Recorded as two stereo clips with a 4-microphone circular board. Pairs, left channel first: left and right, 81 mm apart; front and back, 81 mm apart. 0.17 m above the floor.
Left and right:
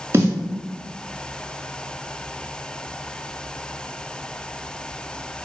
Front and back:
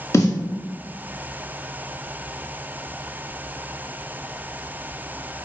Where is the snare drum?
40° right, 1.2 m.